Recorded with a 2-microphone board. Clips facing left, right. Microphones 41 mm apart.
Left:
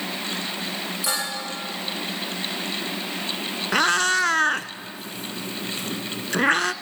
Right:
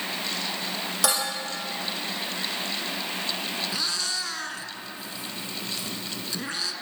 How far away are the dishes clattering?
About 7 m.